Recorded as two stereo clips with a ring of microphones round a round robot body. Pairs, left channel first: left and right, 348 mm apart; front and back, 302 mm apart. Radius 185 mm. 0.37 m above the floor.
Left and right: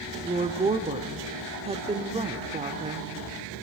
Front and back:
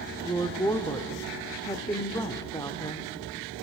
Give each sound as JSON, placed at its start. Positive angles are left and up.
{"t": 0.2, "sound": "a woman speaking", "azimuth_deg": -55, "distance_m": 0.8}